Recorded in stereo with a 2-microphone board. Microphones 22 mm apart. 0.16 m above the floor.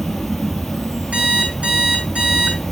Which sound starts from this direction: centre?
An insect, at 0.0 s.